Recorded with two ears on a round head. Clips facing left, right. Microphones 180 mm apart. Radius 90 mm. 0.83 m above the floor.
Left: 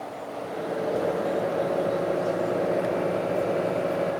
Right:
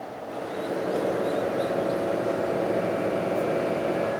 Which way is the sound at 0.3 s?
40° right (ahead or behind).